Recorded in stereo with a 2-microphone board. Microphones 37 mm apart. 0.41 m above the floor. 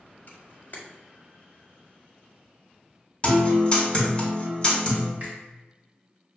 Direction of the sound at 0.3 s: 55° left (ahead or behind).